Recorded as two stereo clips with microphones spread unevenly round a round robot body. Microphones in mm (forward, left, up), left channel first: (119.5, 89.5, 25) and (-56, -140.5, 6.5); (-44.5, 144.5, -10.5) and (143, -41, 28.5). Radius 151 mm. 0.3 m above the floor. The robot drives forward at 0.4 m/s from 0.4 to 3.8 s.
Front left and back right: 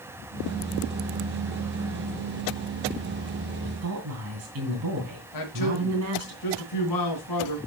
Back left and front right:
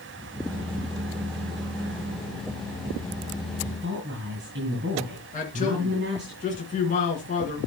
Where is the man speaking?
80° left, 3 m.